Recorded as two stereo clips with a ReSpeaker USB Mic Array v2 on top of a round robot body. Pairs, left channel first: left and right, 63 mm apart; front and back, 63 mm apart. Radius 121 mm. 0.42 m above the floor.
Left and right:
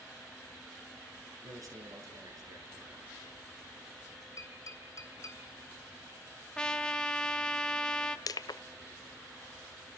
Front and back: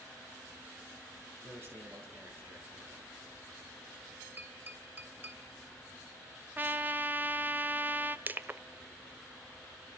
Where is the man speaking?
125° right, 7 m.